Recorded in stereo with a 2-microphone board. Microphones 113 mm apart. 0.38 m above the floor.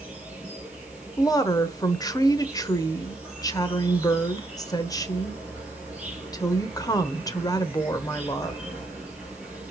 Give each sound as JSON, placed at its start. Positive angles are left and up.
{"t": 0.0, "sound": "an insect", "side_deg": -10, "distance_m": 3.5}
{"t": 1.2, "sound": "a woman speaking", "side_deg": 35, "distance_m": 0.9}